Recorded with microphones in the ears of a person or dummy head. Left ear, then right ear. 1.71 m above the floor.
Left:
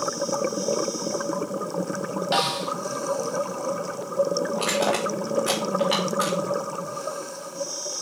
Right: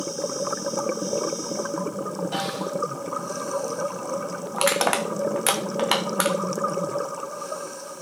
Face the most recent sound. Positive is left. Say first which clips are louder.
# right 5 dB
turn(degrees=-30)  # may be behind; listen again after turning